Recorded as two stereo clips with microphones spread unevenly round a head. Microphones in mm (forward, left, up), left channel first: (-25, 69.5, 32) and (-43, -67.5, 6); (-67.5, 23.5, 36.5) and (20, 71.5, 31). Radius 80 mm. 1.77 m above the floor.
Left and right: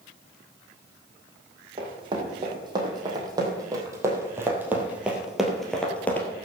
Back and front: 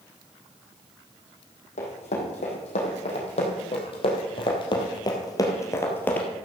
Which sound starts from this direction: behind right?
Running footsteps, at 1.8 s.